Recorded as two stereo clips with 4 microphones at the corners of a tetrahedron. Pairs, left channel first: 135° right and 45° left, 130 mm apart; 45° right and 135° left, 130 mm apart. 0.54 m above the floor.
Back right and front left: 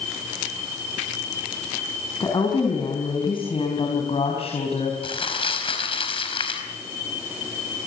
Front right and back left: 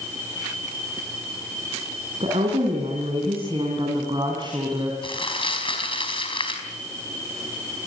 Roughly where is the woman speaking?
Behind.